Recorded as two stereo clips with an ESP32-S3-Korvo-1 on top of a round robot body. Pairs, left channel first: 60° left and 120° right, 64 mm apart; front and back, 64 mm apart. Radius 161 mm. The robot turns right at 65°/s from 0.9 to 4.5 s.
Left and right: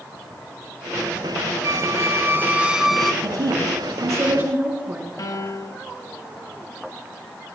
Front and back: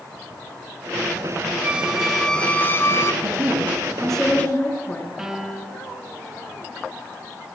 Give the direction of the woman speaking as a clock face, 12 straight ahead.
5 o'clock.